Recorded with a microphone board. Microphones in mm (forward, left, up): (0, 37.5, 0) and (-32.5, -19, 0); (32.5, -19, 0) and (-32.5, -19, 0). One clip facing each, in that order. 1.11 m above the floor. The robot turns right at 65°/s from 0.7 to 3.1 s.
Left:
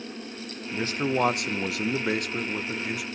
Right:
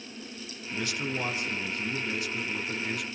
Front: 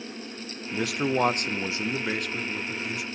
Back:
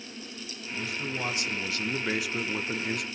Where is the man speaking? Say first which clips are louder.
Left 6 dB, front 8 dB; 5° right, 0.5 m; by 3.0 s 150° left, 0.5 m.